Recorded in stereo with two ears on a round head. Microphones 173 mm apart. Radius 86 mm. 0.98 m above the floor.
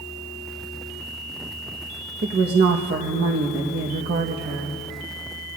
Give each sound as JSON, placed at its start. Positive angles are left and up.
{"t": 2.2, "sound": "a woman speaking", "side_deg": -55, "distance_m": 1.0}